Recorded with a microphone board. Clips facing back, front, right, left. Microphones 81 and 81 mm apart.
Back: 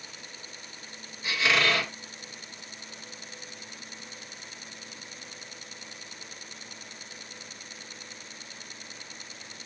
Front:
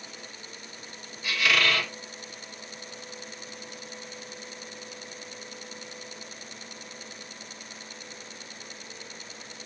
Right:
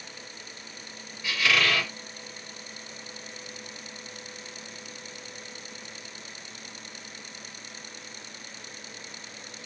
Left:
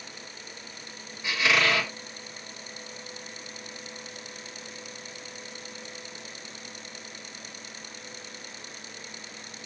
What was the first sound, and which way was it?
A squeak, 140° left.